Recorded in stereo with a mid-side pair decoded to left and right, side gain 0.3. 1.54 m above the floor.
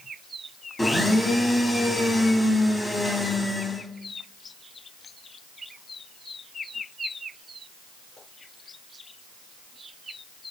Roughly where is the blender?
Ahead left.